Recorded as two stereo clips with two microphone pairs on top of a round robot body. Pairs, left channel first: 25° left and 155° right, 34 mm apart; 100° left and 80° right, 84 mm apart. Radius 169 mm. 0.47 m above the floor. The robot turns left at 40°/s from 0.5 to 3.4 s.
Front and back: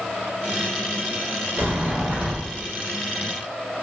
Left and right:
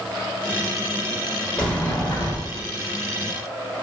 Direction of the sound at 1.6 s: 175° right.